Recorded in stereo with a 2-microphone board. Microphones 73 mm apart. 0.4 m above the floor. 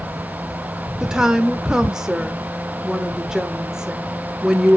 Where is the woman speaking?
10° right (ahead or behind), 0.8 m.